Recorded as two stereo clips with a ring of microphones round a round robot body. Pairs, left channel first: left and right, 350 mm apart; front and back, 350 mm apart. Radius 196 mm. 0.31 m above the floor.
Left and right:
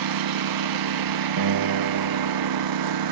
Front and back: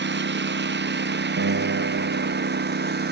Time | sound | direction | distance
0.0 | a lawn mower | 120° right | ?
1.4 | a guitar | 125° right | ?